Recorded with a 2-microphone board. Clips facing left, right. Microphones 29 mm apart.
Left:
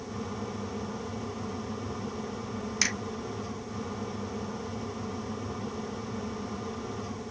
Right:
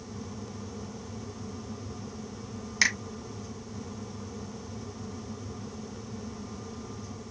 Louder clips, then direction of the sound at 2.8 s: Right 5 dB; 20° right (ahead or behind).